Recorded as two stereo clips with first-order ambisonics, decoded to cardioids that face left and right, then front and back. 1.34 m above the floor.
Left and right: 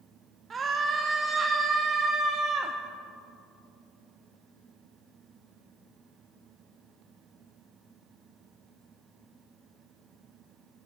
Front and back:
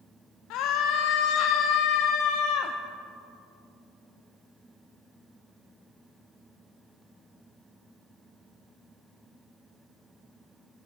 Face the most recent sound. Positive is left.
turn(degrees=-20)